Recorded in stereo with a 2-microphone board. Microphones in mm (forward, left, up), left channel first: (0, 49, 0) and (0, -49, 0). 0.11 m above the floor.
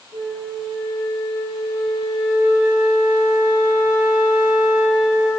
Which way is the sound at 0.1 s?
60° right (ahead or behind).